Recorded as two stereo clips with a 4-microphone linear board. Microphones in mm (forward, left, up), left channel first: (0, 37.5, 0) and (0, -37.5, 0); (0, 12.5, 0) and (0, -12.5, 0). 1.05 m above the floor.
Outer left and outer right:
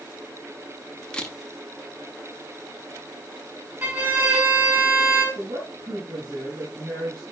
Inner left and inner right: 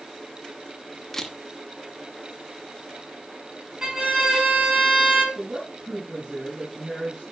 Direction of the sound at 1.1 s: 10° left (ahead or behind).